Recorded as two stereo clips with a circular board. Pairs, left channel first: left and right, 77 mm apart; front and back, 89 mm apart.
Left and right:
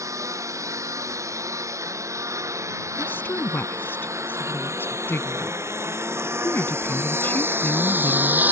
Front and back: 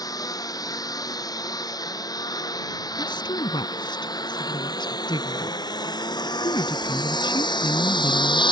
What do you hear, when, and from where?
0.0 s a lawn mower: 45° right; by 8.5 s 25° right
3.0 s a woman speaking: 25° left